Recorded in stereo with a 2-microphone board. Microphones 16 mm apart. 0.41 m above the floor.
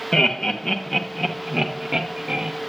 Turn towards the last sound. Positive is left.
turn(degrees=-45)  # may be behind; listen again after turning